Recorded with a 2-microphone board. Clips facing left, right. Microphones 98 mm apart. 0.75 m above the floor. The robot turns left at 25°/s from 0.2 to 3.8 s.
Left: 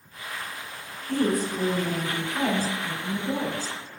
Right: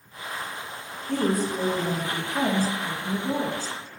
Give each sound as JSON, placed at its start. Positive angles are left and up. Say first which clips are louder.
{"t": 1.1, "sound": "a woman speaking", "louder": "even", "azimuth_deg": -30, "distance_m": 1.4}